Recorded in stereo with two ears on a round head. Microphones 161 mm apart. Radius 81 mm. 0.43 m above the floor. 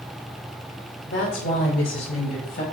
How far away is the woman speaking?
About 1.2 m.